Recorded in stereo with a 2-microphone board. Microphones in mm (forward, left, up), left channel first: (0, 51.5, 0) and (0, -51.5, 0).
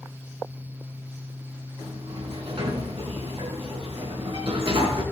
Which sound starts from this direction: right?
A sliding door, at 1.8 s.